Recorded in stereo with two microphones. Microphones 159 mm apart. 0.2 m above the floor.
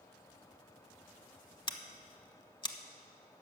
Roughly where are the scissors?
Left.